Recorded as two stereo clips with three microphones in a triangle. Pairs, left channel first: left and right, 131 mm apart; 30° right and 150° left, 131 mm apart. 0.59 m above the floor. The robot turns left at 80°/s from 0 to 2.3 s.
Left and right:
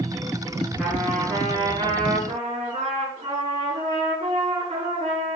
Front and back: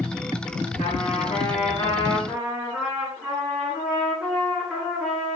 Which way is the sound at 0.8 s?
Straight ahead.